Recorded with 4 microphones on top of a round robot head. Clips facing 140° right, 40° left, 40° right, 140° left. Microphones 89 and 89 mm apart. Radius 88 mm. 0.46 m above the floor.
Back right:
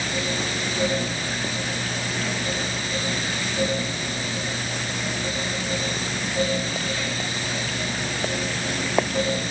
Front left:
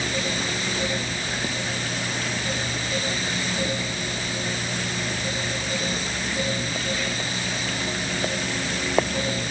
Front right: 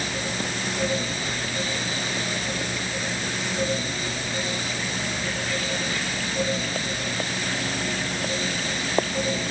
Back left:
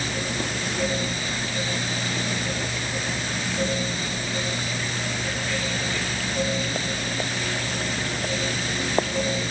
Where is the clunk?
No clunk in this recording.